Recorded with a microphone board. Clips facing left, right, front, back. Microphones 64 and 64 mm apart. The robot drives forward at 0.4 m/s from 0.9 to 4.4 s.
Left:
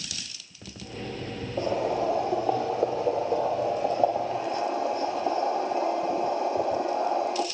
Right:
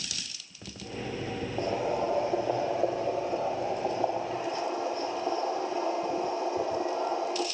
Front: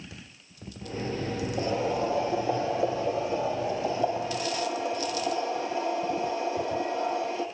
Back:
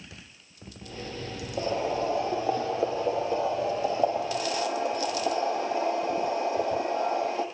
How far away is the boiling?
About 6.5 m.